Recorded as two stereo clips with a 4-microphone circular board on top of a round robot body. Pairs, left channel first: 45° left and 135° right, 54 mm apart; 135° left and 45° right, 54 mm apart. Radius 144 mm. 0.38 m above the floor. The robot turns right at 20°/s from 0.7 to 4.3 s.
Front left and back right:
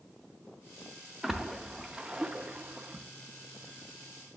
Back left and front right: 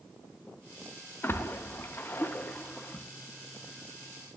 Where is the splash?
145° left, 0.7 m; by 3.0 s straight behind, 0.7 m.